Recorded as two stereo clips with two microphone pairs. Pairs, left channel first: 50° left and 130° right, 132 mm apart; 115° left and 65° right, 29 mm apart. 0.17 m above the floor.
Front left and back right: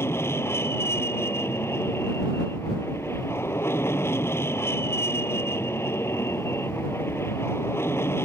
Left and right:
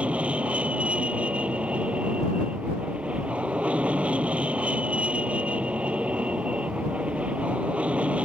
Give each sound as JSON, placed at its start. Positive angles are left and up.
{"t": 0.0, "sound": "an aircraft", "azimuth_deg": -20}